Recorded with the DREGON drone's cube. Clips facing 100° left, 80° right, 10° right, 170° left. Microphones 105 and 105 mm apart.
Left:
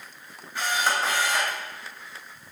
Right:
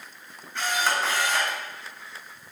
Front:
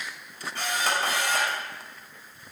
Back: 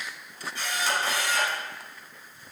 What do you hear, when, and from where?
0.6 s a camera shutter: 20° left, 2.5 m